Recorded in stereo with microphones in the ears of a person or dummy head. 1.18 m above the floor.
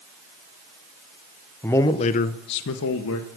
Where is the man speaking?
10° left (ahead or behind), 0.5 m; by 3.3 s 75° left (ahead or behind), 1.0 m.